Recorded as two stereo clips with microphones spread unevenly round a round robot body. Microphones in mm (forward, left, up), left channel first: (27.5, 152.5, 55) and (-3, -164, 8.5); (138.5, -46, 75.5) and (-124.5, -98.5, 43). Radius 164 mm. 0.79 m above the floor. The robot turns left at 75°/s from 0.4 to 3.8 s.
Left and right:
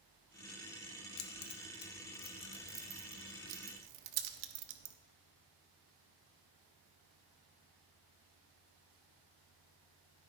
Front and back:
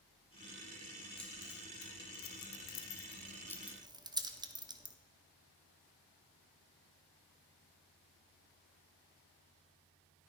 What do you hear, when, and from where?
1.2 s keys jangling: 105° left, 0.9 m; by 5.0 s 95° right, 0.9 m